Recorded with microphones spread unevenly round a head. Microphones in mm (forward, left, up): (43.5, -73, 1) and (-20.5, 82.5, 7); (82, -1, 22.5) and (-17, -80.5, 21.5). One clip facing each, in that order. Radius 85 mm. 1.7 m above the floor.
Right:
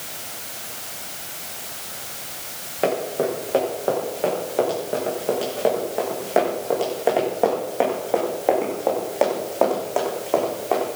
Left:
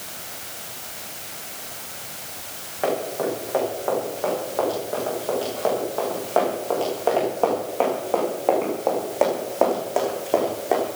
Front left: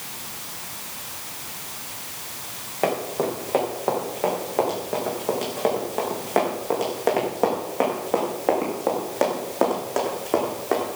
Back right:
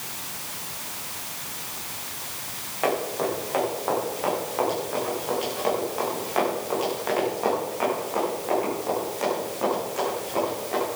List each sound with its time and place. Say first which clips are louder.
2.8 s running footsteps: right 2 dB, front left 1 dB; 15° right, 9.5 m; by 10.9 s 35° left, 6.5 m